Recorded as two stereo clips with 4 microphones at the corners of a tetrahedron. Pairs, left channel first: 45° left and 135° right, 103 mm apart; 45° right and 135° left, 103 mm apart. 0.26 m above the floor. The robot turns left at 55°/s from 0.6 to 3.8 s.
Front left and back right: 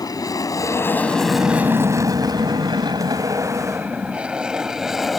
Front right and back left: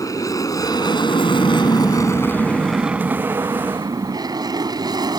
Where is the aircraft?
Straight ahead; by 5.2 s 135° left.